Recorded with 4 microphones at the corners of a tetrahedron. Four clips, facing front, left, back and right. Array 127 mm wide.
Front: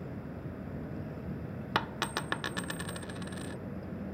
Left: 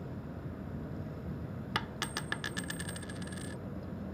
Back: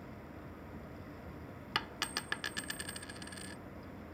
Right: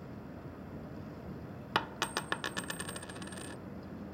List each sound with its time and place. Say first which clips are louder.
0.0 s an insect: left 3 dB, front 7 dB; 20° left
1.8 s a dropped coin: right 5 dB, front 7 dB; 40° right